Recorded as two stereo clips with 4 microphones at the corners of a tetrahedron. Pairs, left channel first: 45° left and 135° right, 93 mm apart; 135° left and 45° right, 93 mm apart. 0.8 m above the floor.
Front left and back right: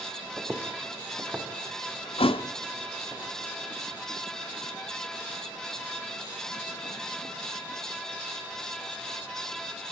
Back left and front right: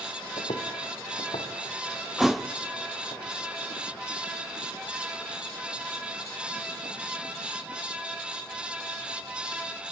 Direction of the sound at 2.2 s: 45° left.